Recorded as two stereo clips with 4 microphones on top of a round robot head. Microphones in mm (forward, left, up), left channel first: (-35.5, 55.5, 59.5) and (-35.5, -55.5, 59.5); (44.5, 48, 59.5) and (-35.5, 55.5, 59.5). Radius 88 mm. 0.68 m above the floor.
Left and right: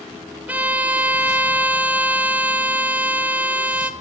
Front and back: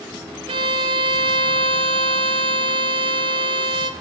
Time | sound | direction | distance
0.5 | a violin | 165° right | 0.7 m